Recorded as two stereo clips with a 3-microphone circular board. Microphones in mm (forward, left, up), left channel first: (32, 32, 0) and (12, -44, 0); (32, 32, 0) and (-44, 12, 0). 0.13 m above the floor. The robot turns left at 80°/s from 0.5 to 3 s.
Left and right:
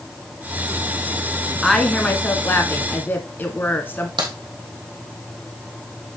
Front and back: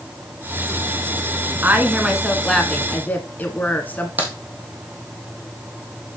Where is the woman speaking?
165° left, 1.2 m; by 4.1 s 55° left, 1.2 m.